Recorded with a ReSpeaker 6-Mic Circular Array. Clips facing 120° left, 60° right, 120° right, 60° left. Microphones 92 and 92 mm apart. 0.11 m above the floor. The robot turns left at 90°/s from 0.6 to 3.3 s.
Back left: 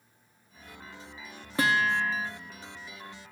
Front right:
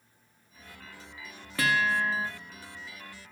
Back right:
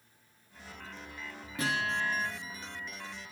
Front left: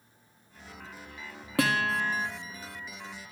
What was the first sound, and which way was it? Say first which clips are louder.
A guitar: back left 1 dB, front left 5 dB; 55° left.